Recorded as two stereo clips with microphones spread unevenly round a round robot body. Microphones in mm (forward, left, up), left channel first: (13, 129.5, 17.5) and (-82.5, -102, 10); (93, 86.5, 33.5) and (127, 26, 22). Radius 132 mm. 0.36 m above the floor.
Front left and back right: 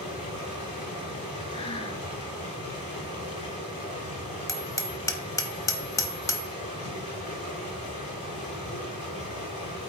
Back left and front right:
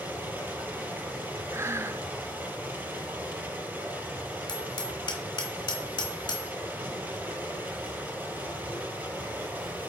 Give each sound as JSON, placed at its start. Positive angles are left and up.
{"t": 0.0, "sound": "running water", "azimuth_deg": 0, "distance_m": 5.0}
{"t": 1.5, "sound": "breathing", "azimuth_deg": -5, "distance_m": 0.7}
{"t": 4.5, "sound": "hammering", "azimuth_deg": 145, "distance_m": 1.0}